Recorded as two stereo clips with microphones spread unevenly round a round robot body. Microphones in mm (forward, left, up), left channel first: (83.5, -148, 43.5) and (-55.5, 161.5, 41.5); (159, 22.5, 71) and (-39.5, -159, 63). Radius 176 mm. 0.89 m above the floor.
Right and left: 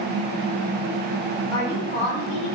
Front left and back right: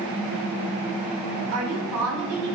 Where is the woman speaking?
110° right, 3 m; by 2.5 s 120° right, 4 m.